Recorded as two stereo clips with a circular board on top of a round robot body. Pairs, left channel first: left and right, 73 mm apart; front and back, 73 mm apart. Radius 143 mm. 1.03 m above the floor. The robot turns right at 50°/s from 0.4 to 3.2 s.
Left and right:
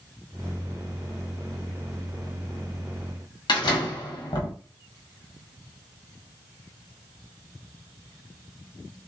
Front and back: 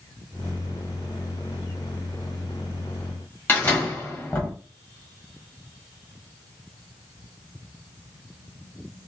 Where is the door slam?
60° left, 1.4 m.